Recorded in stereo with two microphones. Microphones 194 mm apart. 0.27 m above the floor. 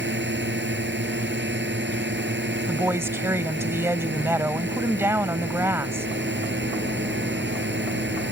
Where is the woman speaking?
15° right (ahead or behind).